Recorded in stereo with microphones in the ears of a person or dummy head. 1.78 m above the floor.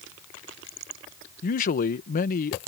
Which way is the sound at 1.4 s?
50° left (ahead or behind).